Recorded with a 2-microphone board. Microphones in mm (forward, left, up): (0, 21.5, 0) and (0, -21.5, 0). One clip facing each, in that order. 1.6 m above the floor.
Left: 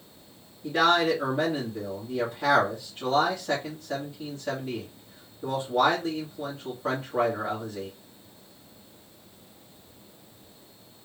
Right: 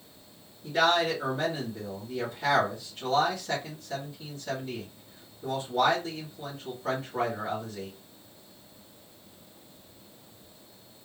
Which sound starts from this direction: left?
A man speaking, at 0.6 s.